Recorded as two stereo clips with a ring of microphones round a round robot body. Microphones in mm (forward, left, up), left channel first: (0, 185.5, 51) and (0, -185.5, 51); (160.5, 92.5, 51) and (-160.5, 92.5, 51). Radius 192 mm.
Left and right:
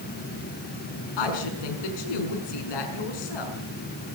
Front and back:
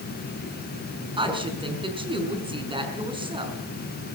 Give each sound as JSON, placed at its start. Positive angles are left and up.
{"t": 1.2, "sound": "a woman speaking", "azimuth_deg": 105, "distance_m": 5.5}